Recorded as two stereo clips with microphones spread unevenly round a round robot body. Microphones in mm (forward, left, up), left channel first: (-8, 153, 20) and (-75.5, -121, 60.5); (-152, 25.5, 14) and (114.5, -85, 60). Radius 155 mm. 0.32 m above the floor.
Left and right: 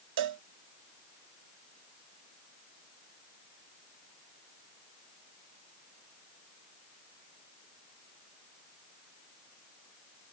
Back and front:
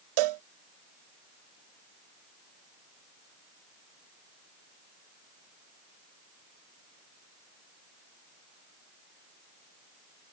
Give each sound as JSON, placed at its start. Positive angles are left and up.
{"t": 0.2, "sound": "a cowbell", "azimuth_deg": -50}